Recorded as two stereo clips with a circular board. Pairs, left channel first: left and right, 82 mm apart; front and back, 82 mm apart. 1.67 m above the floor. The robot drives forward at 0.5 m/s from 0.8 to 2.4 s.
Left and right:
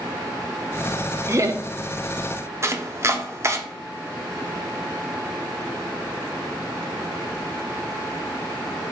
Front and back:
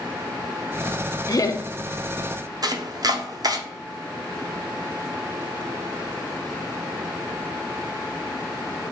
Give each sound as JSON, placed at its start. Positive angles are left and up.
{"t": 1.3, "sound": "laughter", "azimuth_deg": -35, "distance_m": 0.7}
{"t": 2.6, "sound": "chopping", "azimuth_deg": -145, "distance_m": 0.6}